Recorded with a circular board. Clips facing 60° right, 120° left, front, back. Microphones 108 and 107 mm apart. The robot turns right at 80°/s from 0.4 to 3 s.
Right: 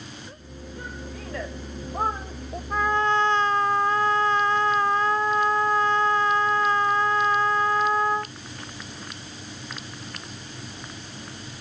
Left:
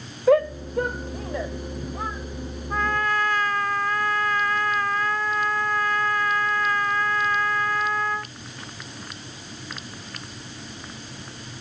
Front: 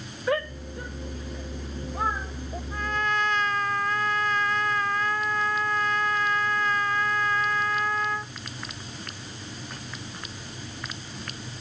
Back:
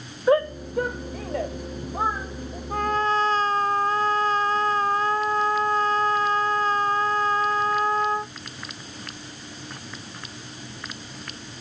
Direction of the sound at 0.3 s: 120° left.